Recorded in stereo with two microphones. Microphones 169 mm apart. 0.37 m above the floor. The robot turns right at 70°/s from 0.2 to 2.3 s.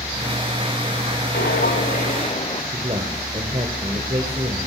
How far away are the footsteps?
About 2 m.